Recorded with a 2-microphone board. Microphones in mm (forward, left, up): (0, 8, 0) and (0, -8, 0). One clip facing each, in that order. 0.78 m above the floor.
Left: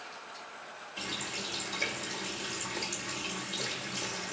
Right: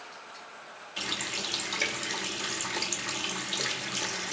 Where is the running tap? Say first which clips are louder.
Right 5 dB; 45° right (ahead or behind), 0.7 m.